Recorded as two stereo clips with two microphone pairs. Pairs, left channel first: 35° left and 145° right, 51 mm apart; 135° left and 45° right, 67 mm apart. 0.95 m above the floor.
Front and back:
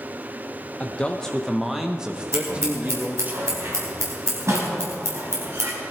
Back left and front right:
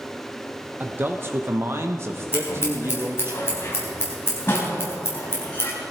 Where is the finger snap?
No finger snap in this recording.